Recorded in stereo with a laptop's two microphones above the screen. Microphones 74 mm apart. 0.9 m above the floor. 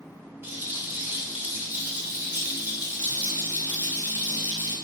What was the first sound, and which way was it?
A rattle, 25° right (ahead or behind).